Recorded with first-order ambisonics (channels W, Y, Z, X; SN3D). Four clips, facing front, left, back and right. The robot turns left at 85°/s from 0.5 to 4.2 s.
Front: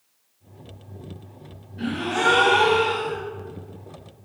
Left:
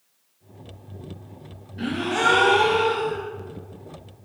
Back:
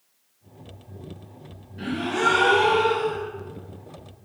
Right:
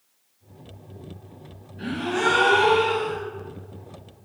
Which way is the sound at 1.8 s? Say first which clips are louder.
Left 2 dB, front 1 dB; 95° left.